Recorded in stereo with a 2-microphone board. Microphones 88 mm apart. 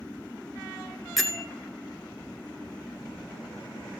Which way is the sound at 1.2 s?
Centre (ahead or behind).